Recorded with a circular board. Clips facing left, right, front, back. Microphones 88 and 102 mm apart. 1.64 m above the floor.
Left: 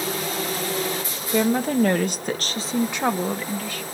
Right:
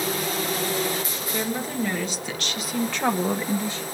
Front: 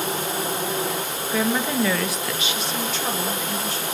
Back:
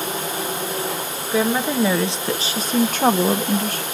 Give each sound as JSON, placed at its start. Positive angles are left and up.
{"t": 1.3, "sound": "a woman speaking", "azimuth_deg": 105, "distance_m": 1.8}